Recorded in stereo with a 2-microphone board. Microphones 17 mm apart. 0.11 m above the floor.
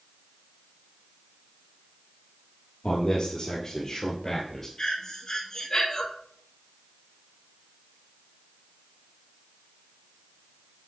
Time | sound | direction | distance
2.8 | a man speaking | 55° left (ahead or behind) | 2.5 m
4.8 | breathing | 50° left (ahead or behind) | 1.3 m